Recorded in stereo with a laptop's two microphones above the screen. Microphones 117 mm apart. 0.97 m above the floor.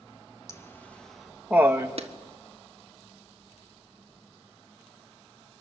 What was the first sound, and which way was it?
Laughter, 25° left (ahead or behind).